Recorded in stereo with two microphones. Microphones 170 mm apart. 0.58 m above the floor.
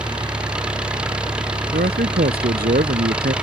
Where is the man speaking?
65° right (ahead or behind).